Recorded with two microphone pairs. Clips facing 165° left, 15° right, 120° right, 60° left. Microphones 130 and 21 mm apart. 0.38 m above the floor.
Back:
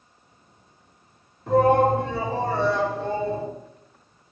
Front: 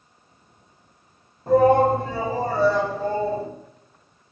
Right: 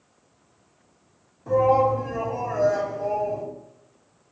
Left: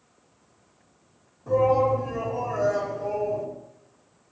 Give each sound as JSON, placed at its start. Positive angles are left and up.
{"t": 1.5, "sound": "a shout", "azimuth_deg": -60, "distance_m": 2.5}